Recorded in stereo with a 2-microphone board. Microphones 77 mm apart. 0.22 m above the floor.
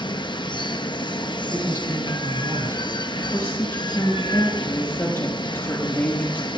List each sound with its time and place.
0.0 s running water: 85° left, 0.8 m
1.5 s a man speaking: 40° right (ahead or behind), 1.9 m
3.3 s a woman speaking: 30° left (ahead or behind), 6 m